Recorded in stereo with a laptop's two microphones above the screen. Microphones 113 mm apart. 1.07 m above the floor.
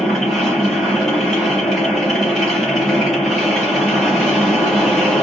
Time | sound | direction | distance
0.0 | a machine running | centre (ahead or behind) | 1.2 m